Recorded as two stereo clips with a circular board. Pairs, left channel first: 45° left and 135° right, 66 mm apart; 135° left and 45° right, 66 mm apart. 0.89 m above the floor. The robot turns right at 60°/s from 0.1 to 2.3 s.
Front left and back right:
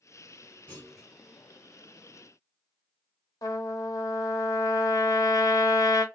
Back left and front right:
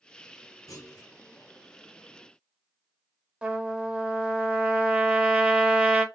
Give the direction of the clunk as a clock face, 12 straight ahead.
8 o'clock.